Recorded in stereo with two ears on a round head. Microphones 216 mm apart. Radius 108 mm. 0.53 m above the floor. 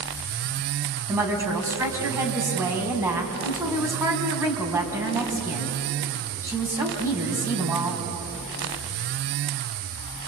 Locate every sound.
1.1 s a woman speaking: 10° right (ahead or behind), 4 m